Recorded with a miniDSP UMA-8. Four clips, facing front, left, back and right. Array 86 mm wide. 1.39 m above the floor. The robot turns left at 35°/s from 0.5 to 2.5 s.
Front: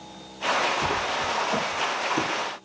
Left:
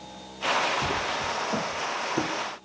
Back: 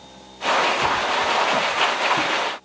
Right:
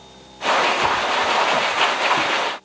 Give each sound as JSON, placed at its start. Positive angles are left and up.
{"t": 0.8, "sound": "footsteps", "azimuth_deg": 90, "distance_m": 1.4}